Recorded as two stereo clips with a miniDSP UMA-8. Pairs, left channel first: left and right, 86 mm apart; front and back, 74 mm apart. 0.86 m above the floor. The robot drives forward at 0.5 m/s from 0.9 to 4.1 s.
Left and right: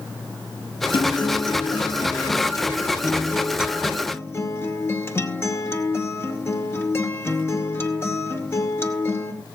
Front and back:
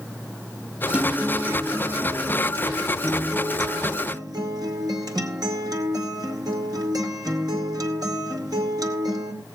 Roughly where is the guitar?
Left.